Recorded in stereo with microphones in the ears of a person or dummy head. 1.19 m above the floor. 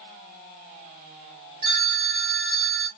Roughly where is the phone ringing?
Right.